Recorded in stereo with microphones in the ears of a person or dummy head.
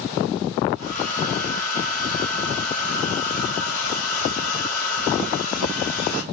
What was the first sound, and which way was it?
A hair dryer, 55° left (ahead or behind).